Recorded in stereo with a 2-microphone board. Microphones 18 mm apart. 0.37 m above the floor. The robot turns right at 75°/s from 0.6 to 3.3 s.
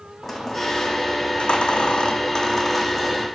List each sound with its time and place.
0.2 s a squeak: 10° left, 3 m; by 3.3 s 150° right, 3 m